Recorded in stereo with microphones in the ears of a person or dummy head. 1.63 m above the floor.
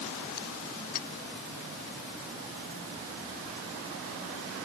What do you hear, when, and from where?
0.9 s a clink: 40° left (ahead or behind)